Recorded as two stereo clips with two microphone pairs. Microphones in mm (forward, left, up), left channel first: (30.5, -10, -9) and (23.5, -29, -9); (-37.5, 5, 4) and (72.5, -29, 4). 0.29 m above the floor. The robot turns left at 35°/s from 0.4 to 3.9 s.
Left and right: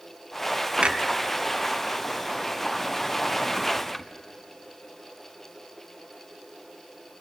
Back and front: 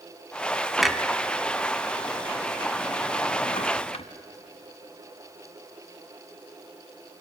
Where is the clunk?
105° right, 1.1 m; by 4.0 s 150° left, 1.1 m.